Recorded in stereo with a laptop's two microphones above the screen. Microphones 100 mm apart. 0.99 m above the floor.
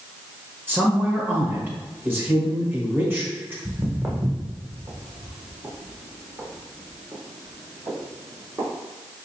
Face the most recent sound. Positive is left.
turn(degrees=-40)  # may be behind; listen again after turning